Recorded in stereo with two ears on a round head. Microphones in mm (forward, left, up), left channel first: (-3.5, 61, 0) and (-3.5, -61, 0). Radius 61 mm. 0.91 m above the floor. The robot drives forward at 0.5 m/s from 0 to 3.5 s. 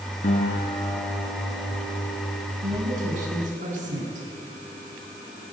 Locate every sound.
0.2 s a guitar: 50° left (ahead or behind), 5 m; by 2.5 s 45° left (ahead or behind), 5.5 m
2.6 s a woman speaking: 65° right (ahead or behind), 7.5 m